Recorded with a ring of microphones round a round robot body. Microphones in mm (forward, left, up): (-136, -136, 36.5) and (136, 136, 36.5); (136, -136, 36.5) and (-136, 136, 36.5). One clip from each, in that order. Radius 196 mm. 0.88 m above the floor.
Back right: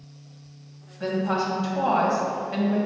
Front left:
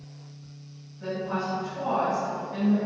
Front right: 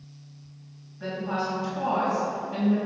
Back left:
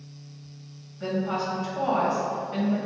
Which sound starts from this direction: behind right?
A woman speaking, at 1.0 s.